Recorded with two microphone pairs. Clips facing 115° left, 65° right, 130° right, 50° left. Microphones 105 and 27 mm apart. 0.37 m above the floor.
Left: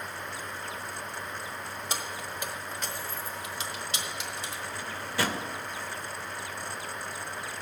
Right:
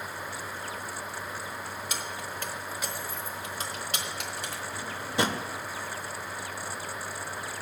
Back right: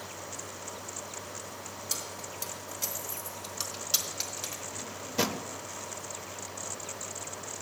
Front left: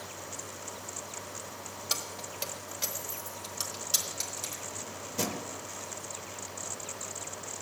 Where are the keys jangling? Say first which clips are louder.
Even, front left 3 dB; 70° left, 1.1 m; by 4.6 s 60° right, 1.7 m.